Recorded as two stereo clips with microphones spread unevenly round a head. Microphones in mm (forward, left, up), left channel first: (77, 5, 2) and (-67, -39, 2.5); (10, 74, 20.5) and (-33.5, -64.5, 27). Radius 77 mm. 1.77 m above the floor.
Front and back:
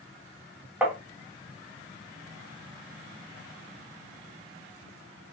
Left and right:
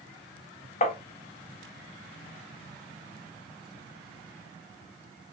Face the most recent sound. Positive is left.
turn(degrees=115)